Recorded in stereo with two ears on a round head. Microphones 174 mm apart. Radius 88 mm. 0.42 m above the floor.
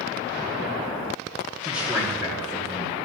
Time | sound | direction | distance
1.6 | a man speaking | 5° right (ahead or behind) | 6.5 m